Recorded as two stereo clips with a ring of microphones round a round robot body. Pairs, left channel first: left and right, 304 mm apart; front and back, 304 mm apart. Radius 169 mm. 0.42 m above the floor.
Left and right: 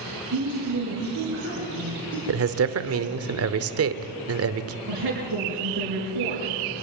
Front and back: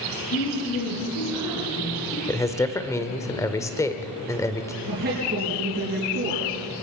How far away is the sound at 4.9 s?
About 5.5 m.